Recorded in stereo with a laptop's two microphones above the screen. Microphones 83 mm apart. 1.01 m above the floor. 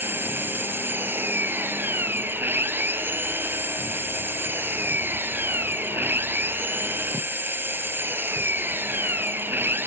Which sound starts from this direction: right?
An engine running, at 0.0 s.